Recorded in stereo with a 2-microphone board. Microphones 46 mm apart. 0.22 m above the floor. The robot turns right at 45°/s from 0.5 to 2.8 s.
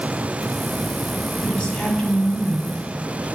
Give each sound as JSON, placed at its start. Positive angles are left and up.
{"t": 1.4, "sound": "a woman speaking", "azimuth_deg": 120, "distance_m": 1.7}